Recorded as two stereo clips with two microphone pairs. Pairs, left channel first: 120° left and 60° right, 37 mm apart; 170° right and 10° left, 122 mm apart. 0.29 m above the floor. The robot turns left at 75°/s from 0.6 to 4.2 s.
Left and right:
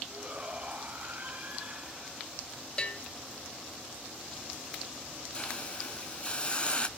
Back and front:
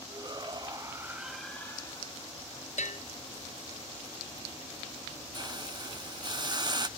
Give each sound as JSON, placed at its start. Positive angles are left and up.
{"t": 0.1, "sound": "a shout", "azimuth_deg": -20, "distance_m": 2.0}
{"t": 2.8, "sound": "a bell", "azimuth_deg": -175, "distance_m": 1.8}
{"t": 5.3, "sound": "a hiss", "azimuth_deg": 60, "distance_m": 0.6}